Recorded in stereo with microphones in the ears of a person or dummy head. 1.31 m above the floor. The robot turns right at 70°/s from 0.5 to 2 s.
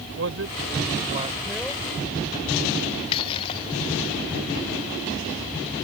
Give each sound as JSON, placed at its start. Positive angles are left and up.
{"t": 0.2, "sound": "a man speaking", "azimuth_deg": -85}
{"t": 3.1, "sound": "breaking glass", "side_deg": 25}